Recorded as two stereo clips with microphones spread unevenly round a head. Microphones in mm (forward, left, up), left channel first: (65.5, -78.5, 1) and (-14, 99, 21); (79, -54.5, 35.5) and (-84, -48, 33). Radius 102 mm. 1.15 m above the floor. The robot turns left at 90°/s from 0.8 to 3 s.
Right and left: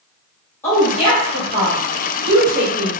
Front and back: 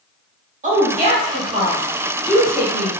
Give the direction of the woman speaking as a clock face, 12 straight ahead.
5 o'clock.